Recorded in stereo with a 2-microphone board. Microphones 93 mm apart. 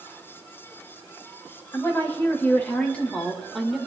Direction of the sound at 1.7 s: 25° left (ahead or behind).